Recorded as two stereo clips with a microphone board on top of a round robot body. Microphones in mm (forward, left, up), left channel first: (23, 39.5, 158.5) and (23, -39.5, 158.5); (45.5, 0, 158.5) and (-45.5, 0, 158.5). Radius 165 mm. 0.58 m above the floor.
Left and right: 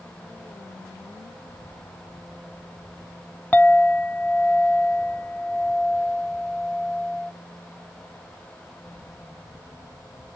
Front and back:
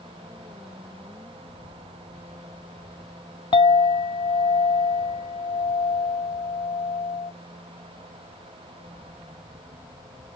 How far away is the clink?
About 0.6 m.